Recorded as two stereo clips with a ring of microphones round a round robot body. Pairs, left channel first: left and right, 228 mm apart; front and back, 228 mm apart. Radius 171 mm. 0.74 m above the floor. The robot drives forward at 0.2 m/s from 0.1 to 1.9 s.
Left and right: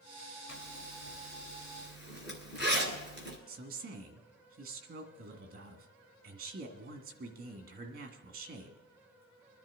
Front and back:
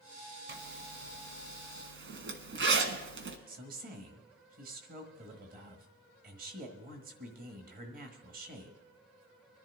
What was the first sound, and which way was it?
A zipper, 140° left.